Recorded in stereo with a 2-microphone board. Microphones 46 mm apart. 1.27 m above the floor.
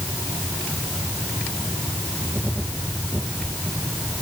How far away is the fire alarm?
No fire alarm in this recording.